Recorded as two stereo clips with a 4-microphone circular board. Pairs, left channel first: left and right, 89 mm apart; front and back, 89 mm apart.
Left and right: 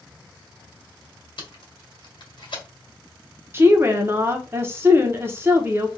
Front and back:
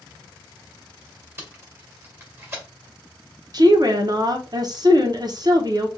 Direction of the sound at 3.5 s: 150° right.